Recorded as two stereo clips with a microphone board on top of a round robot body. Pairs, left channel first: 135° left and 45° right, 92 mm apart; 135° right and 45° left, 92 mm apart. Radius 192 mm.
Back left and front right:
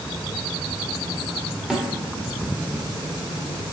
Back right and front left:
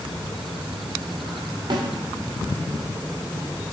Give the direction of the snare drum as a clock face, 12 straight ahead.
11 o'clock.